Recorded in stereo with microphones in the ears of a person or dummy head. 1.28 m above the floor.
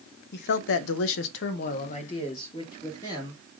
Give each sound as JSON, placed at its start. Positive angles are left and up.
{"t": 0.3, "sound": "a man speaking", "side_deg": 55, "distance_m": 0.7}